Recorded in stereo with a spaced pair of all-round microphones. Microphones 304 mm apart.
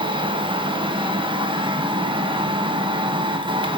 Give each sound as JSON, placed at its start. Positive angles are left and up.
{"t": 0.0, "sound": "a machine running", "side_deg": -15, "distance_m": 1.6}